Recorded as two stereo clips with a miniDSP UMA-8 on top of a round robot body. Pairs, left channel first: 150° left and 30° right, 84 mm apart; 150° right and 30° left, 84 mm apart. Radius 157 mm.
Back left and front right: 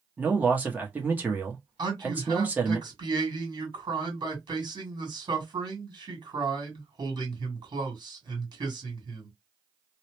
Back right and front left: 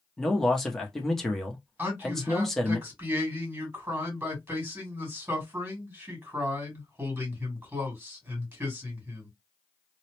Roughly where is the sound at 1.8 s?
Ahead right.